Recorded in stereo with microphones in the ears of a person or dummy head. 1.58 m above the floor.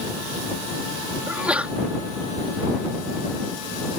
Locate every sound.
1.3 s a sneeze: 5° right (ahead or behind)